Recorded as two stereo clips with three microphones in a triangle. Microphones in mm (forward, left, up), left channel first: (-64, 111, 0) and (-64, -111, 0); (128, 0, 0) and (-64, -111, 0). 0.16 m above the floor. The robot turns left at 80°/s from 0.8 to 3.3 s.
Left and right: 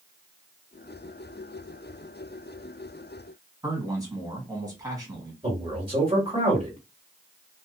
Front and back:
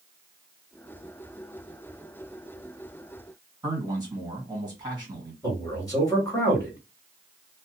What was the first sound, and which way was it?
A man speaking, 125° right.